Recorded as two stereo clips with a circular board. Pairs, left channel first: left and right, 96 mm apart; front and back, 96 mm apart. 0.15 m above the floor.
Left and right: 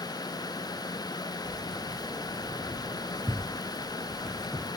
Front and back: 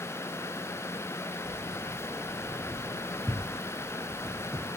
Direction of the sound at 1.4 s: 55° right.